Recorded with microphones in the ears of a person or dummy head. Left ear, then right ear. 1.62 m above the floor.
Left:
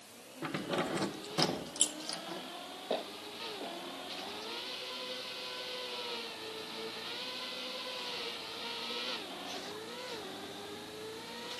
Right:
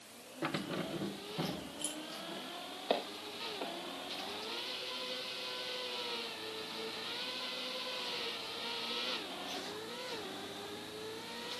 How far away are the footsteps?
About 5 m.